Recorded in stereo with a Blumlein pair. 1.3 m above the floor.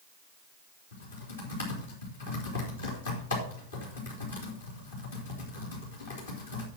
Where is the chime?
I don't hear a chime.